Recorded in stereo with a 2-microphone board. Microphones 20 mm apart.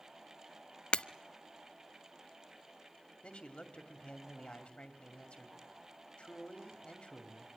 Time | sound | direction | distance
0.9 | breaking glass | 65° left (ahead or behind) | 0.6 m
3.2 | a man speaking | 65° left (ahead or behind) | 2.5 m